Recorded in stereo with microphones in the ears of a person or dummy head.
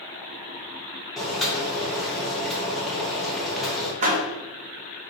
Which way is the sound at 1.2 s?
Centre (ahead or behind).